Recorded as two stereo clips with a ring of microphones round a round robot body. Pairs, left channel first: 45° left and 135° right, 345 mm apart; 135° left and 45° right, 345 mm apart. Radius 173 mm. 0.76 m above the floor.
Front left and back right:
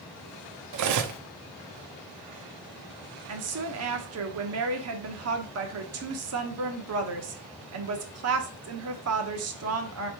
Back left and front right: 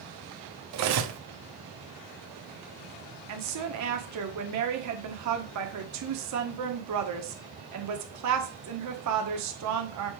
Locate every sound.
0.7 s cutlery clinking: 90° right, 0.7 m
3.3 s a woman speaking: 85° right, 1.3 m